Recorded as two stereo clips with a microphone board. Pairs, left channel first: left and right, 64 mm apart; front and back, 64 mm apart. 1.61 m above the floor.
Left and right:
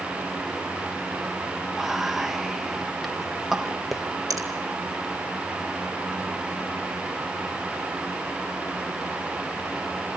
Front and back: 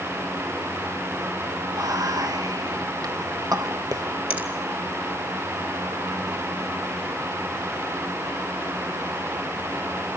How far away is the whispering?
About 1.5 m.